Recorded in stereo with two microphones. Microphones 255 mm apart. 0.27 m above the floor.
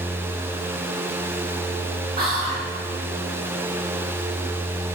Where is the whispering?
20° right (ahead or behind), 1.2 m.